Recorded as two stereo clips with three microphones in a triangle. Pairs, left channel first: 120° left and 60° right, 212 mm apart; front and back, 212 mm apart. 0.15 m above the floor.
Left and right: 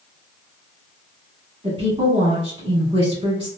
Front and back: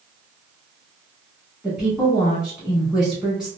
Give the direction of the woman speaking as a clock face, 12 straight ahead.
3 o'clock.